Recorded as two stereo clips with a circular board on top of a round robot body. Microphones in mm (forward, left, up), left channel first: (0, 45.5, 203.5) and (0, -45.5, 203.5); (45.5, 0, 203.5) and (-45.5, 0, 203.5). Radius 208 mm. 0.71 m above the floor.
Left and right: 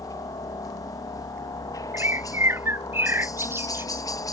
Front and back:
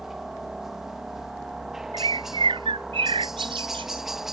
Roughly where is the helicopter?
Left.